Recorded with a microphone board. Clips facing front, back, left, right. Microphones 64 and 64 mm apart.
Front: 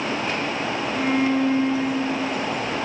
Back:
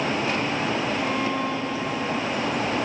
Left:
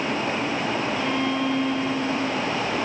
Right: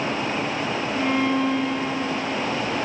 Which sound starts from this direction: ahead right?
A violin, at 0.9 s.